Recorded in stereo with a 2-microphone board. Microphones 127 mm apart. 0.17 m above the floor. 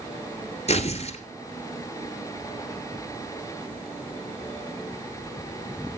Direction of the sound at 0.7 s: 55° left (ahead or behind).